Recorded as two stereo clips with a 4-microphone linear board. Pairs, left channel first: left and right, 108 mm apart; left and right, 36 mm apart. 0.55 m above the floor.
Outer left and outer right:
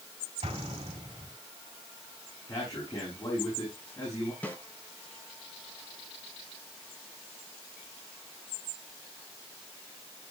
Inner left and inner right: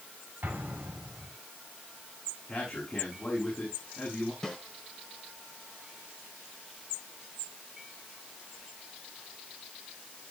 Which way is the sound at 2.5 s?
35° left (ahead or behind).